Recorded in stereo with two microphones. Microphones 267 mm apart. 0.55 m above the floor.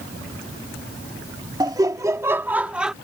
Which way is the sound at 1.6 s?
15° right (ahead or behind).